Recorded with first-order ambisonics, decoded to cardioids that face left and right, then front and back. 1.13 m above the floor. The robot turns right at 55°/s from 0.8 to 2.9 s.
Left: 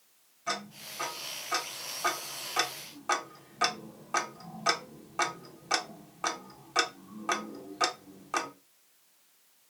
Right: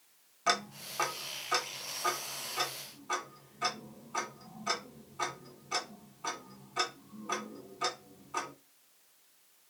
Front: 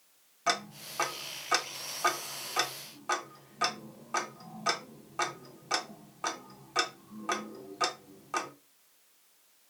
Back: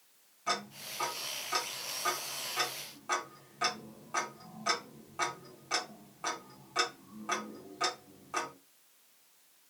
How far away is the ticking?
About 0.6 m.